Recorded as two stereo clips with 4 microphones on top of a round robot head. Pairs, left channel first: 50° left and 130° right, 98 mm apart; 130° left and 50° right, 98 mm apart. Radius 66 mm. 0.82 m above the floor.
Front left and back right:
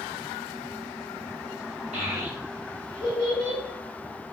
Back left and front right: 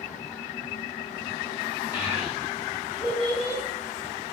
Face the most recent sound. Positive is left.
turn(degrees=-130)